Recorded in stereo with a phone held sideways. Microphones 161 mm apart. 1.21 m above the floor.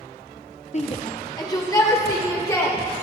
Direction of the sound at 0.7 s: 45° left (ahead or behind).